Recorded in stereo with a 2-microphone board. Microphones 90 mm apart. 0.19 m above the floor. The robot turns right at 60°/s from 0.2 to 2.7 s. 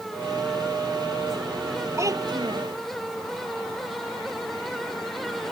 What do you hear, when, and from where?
2.0 s a child speaking: 145° right; by 2.8 s 105° right